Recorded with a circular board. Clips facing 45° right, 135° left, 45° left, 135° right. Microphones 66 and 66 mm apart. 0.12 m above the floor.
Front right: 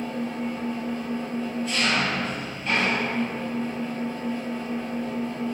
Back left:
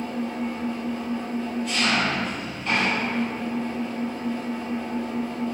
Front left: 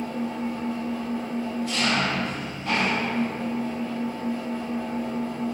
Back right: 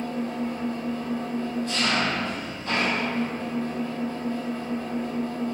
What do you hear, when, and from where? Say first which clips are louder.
0.0 s an engine running: back left 1 dB, even; 45° left, 1.7 m